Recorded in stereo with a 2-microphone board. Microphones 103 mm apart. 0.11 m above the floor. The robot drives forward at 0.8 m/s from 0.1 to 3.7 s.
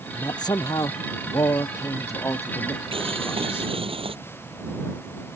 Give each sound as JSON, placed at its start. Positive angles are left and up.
{"t": 0.1, "sound": "a man speaking", "side_deg": 45}
{"t": 2.9, "sound": "boiling", "side_deg": -65}